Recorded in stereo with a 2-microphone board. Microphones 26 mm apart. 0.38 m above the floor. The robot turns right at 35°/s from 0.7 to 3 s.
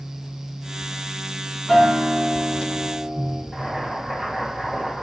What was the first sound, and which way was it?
A guitar, 175° right.